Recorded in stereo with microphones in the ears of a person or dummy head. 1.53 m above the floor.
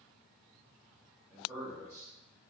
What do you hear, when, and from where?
1.3 s a man speaking: 20° right (ahead or behind), 1.8 m